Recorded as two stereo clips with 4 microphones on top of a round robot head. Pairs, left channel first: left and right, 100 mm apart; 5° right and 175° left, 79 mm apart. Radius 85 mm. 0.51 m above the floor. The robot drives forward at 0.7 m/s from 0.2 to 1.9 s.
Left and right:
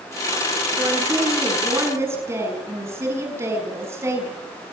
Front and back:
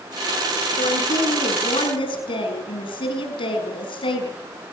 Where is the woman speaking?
20° right, 6.5 m; by 4.3 s 25° right, 6 m.